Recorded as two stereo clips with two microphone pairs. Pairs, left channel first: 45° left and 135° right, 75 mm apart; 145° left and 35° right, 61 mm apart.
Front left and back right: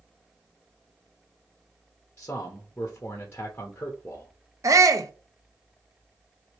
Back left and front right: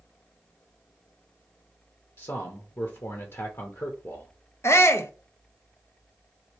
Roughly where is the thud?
I don't hear a thud.